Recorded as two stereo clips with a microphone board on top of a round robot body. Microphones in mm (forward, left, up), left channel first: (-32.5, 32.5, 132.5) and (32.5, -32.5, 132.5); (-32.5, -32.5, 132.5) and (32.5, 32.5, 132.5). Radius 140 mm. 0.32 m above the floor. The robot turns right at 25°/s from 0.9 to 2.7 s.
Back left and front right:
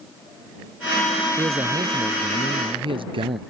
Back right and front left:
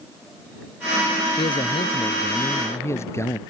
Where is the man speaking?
105° right; by 3.4 s 75° right.